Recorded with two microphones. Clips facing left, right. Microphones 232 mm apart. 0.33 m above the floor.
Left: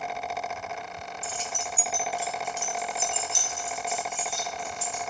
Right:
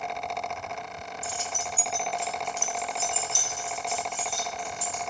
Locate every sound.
1.2 s keys jangling: 20° right (ahead or behind), 0.7 m; by 5.0 s 30° left (ahead or behind), 2.5 m